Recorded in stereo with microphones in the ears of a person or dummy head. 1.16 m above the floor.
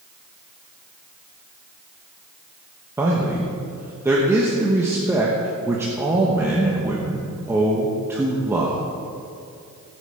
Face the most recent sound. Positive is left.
turn(degrees=-15)  # may be behind; listen again after turning